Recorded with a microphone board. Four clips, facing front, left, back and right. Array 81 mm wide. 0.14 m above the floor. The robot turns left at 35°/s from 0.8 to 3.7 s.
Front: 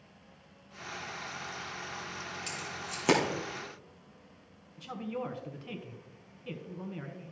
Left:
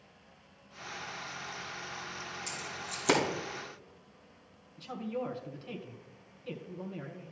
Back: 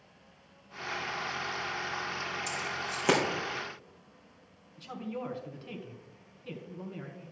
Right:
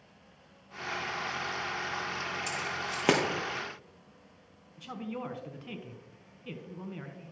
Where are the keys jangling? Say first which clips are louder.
Right 7 dB, back 5 dB; 70° right, 2.5 m; by 3.2 s 95° right, 2.5 m.